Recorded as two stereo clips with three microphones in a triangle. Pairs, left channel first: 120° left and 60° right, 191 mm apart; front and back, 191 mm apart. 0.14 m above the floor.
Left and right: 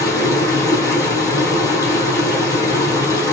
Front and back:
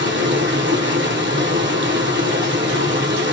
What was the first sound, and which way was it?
Running water, 165° right.